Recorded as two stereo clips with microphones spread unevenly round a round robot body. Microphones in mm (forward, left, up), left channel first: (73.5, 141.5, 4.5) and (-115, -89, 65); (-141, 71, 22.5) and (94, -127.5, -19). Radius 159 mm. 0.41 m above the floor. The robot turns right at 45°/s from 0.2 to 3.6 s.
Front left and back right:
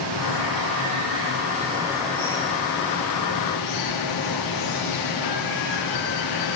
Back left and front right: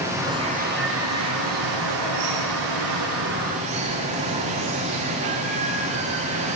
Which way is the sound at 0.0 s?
125° right.